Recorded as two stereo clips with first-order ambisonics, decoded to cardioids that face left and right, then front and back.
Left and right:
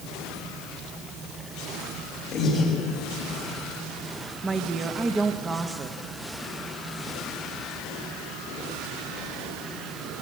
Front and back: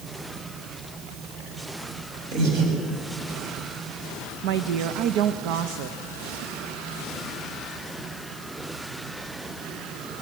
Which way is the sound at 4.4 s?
165° right.